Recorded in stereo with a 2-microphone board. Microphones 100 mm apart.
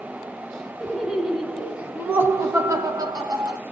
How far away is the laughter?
About 1.2 m.